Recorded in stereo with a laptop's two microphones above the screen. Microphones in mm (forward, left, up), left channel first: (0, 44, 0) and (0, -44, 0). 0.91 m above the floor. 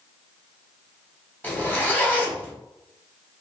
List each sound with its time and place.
1.4 s a zipper: 20° left (ahead or behind), 1.3 m